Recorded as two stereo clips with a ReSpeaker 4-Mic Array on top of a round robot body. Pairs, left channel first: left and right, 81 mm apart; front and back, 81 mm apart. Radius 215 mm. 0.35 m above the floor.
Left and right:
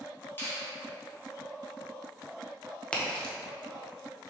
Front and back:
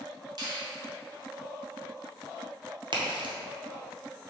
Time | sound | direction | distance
0.4 | a finger snap | 150° left | 1.9 m
2.9 | a crack | 165° left | 1.0 m